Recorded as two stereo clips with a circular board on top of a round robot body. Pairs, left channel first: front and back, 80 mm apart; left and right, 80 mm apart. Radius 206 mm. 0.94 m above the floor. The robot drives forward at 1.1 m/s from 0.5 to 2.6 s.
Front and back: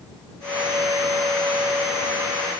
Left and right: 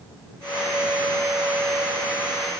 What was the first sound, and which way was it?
Only background noise.